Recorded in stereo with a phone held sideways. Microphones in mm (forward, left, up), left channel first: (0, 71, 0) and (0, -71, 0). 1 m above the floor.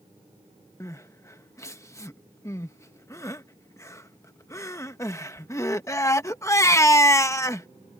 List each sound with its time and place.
0.8 s crying: 20° left (ahead or behind)